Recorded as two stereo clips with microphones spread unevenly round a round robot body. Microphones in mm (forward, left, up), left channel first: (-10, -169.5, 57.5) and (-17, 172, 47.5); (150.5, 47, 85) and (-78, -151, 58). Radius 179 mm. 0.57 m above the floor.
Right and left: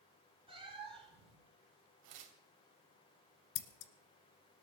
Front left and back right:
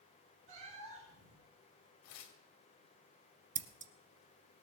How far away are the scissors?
About 1.6 m.